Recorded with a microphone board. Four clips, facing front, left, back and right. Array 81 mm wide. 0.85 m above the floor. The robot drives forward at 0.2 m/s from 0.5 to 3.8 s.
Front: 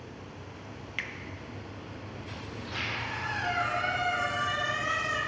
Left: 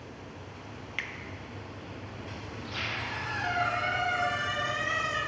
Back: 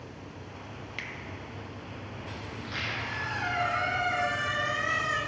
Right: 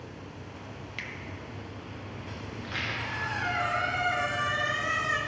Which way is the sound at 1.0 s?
50° left.